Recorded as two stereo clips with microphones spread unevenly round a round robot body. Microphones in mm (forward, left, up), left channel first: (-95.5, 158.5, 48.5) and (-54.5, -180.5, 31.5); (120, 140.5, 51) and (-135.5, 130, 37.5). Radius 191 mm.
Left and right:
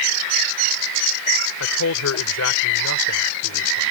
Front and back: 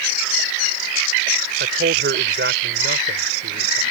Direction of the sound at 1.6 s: 140° left.